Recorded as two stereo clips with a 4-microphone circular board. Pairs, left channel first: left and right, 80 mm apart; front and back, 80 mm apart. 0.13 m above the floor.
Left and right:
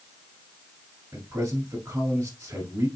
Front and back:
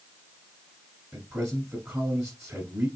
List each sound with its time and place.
1.1 s a man speaking: 130° right, 1.4 m